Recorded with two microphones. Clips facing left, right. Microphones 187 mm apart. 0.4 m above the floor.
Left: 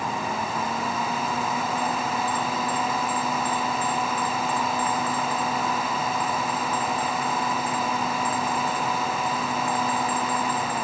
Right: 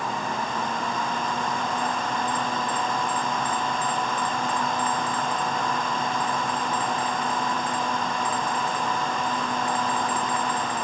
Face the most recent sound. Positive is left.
No sound to turn to.